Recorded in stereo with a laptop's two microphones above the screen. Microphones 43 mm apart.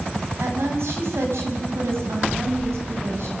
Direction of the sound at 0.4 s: 75° right (ahead or behind).